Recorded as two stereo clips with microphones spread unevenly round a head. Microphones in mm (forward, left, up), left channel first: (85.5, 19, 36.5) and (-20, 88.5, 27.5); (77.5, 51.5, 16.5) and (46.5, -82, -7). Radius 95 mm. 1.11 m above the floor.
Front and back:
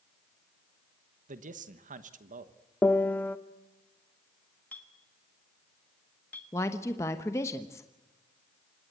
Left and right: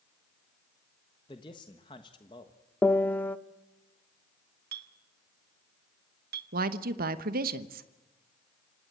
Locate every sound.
1.3 s a man speaking: 145° left, 1.2 m
2.8 s a piano: 25° left, 0.7 m
4.7 s a clink: 115° right, 1.2 m
6.5 s a woman speaking: 110° right, 1.0 m